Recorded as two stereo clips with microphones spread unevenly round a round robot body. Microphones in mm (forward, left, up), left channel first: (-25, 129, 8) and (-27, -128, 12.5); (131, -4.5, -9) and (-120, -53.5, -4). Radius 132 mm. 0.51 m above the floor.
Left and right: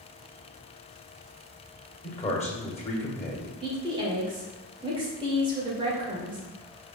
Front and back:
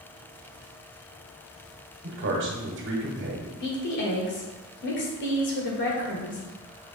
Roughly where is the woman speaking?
Ahead.